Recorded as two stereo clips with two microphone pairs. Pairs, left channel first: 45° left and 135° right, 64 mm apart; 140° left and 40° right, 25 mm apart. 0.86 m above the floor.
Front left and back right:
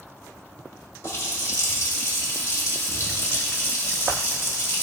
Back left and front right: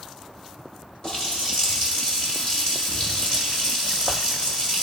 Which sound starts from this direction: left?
A running tap, at 1.0 s.